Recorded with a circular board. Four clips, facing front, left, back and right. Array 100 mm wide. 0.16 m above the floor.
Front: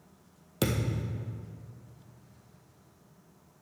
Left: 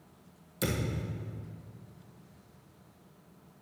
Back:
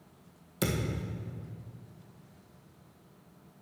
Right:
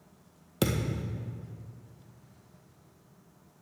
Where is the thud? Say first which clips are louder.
Right 3 dB, front 2 dB; 60° right, 1.7 m.